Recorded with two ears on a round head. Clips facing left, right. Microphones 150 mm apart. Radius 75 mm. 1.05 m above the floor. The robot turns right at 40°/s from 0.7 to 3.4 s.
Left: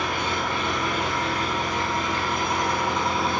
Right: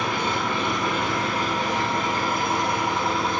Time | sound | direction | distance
0.0 | an engine running | 100° right | 1.4 m